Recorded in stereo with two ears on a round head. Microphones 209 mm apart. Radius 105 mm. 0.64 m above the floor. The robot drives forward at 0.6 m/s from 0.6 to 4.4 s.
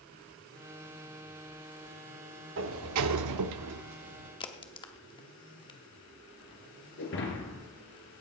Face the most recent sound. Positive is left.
turn(degrees=50)  # may be behind; listen again after turning